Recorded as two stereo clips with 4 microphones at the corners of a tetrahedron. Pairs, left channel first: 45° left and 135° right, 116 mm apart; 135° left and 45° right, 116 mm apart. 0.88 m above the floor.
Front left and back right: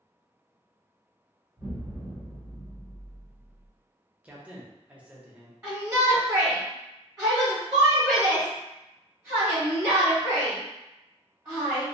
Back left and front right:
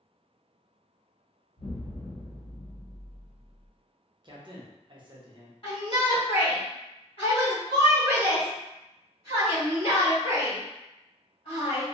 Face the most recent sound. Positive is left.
turn(degrees=165)